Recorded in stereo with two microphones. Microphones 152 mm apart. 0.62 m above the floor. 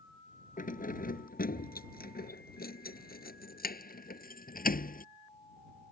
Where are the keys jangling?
65° left (ahead or behind).